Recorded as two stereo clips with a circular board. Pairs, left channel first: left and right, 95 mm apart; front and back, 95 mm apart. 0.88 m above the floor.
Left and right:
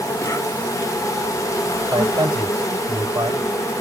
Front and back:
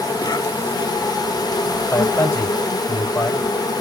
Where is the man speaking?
55° right, 3.5 m.